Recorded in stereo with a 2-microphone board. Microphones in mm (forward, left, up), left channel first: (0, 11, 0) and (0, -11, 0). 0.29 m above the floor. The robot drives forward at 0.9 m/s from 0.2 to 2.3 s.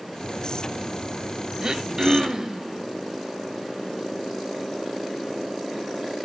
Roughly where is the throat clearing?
Right.